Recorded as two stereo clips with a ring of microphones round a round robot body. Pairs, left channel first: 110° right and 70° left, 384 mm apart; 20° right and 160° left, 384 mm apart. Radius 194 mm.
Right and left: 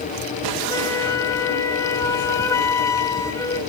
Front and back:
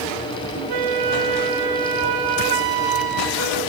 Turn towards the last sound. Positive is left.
turn(degrees=165)